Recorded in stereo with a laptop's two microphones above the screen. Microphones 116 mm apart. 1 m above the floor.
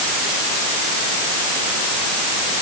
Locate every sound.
Only background noise.